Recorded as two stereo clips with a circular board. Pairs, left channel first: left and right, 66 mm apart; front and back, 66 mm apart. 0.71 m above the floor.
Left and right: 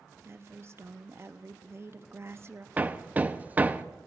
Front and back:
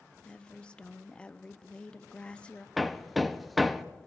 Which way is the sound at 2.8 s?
90° right.